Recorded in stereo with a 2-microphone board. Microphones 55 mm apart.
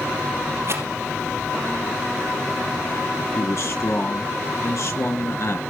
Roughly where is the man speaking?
Left.